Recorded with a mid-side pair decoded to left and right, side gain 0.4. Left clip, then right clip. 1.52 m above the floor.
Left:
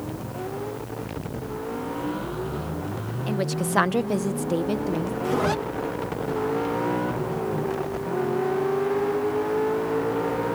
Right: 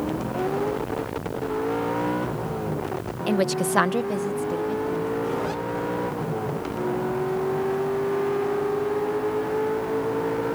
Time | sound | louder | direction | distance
3.3 | a woman speaking | right 5 dB | 50° right | ?
5.2 | a zipper | left 3 dB | 55° left | ?